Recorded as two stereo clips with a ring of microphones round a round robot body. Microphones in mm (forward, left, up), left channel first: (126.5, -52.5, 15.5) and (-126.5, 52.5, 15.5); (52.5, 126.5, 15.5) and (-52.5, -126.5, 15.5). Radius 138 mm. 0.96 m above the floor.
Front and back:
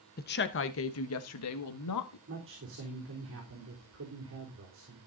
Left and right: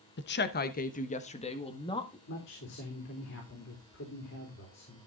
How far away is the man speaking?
About 3.5 m.